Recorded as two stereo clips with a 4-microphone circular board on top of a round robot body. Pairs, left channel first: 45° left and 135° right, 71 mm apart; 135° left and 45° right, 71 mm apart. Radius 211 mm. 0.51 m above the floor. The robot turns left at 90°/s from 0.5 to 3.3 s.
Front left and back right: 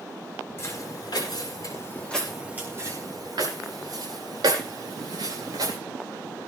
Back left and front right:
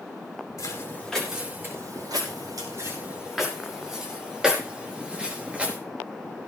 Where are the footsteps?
100° left, 9.5 m; by 5.8 s 115° right, 5.5 m.